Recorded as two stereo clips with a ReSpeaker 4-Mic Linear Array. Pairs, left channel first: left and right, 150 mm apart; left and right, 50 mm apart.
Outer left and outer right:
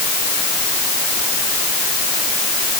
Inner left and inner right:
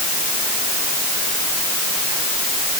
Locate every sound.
Only background noise.